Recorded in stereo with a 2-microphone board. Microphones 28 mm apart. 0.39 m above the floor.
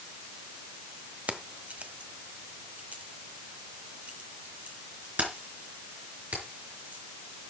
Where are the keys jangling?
60° right (ahead or behind), 1.1 m; by 7.0 s 65° right (ahead or behind), 4.5 m.